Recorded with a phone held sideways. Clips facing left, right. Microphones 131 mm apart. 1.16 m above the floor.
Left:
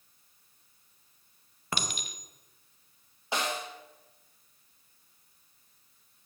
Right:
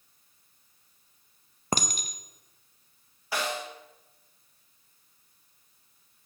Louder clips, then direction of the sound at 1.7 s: Right 5 dB; 40° right (ahead or behind).